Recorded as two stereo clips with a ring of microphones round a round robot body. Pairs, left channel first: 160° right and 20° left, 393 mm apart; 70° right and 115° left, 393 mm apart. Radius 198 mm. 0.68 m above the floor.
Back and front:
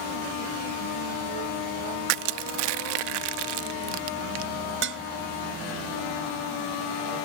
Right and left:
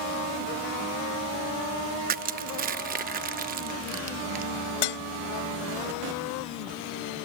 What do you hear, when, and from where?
2.1 s crushing: 45° left
4.8 s dishes clattering: 40° right